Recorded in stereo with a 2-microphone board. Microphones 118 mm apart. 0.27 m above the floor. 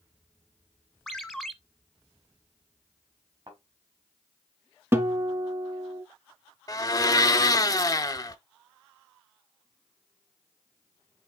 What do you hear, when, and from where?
1.1 s a ringtone: centre (ahead or behind), 1.1 m
3.5 s a thud: 50° right (ahead or behind), 5 m
4.9 s a guitar: 20° right (ahead or behind), 1.2 m
6.7 s a blender: 30° left (ahead or behind), 0.5 m